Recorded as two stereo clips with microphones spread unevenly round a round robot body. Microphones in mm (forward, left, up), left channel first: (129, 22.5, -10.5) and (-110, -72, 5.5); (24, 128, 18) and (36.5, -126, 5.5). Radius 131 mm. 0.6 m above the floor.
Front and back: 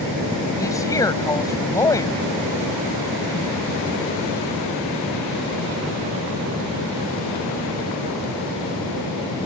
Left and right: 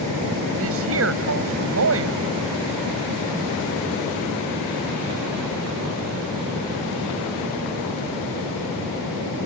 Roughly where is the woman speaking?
Ahead right.